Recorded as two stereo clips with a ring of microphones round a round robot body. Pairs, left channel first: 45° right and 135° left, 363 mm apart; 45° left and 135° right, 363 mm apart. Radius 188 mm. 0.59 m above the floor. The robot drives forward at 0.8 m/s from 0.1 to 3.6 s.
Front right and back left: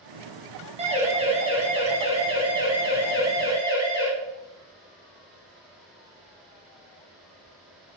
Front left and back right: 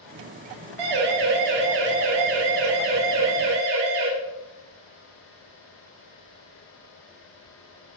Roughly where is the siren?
Behind right.